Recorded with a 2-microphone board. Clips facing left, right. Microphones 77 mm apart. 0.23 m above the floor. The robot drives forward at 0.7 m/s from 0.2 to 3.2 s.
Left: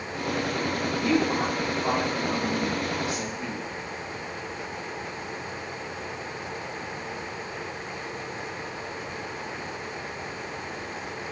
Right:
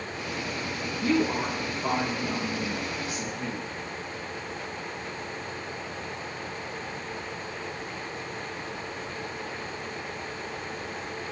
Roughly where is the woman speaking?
Right.